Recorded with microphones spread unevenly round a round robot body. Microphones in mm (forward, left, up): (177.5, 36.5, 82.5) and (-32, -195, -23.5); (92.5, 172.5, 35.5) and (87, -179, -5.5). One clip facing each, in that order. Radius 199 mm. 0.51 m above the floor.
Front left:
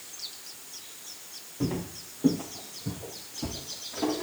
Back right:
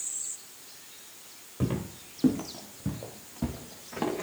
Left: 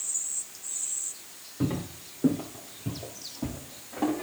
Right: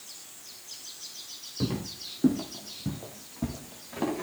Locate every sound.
1.6 s footsteps: 170° right, 3.5 m; by 4.2 s 145° right, 4 m